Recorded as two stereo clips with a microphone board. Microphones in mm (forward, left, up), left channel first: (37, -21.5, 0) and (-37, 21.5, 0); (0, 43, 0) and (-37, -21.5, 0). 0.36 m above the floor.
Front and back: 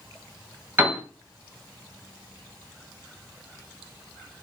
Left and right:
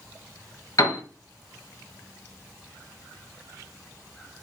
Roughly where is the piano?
Left.